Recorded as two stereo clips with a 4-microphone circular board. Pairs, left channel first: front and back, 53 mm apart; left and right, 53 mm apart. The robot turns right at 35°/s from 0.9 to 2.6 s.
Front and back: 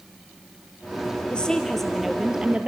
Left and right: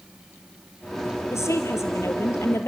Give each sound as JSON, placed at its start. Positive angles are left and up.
{"t": 1.3, "sound": "a woman speaking", "azimuth_deg": 70, "distance_m": 2.5}